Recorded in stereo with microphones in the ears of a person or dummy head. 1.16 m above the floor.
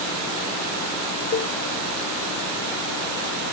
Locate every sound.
1.3 s a cowbell: 45° left (ahead or behind)